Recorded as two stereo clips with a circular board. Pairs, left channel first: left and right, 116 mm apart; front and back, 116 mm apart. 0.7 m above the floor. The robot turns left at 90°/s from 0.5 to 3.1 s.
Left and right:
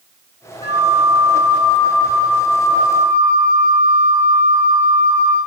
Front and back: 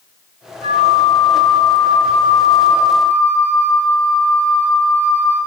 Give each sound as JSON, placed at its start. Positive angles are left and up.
{"t": 0.6, "sound": "a flute", "azimuth_deg": 150, "distance_m": 3.5}